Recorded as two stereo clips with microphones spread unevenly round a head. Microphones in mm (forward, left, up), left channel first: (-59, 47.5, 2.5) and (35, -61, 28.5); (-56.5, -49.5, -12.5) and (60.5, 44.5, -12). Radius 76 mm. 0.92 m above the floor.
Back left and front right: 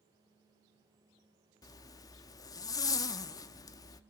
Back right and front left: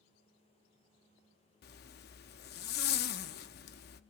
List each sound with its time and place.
1.6 s a zipper: 160° right, 0.7 m